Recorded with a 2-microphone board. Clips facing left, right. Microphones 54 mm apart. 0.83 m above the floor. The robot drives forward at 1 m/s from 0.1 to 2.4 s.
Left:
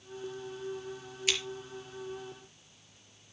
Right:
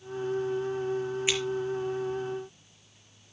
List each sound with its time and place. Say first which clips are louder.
1.3 s scissors: right 1 dB; 20° right (ahead or behind), 4 m